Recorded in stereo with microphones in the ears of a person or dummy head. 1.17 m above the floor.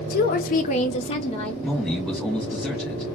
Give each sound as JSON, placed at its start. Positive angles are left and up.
{"t": 0.1, "sound": "a woman speaking", "side_deg": 35, "distance_m": 0.5}
{"t": 1.6, "sound": "a man speaking", "side_deg": 0, "distance_m": 1.5}